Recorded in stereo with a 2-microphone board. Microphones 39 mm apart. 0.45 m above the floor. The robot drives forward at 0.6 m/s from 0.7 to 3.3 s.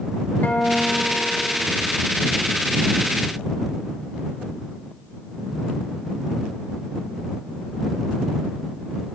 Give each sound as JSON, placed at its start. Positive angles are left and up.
{"t": 0.4, "sound": "a guitar", "side_deg": 55, "distance_m": 1.1}